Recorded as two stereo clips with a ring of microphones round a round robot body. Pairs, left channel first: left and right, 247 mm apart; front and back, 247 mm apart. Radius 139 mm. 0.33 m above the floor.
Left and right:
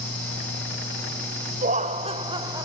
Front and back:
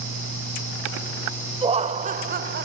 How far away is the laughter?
About 1.3 m.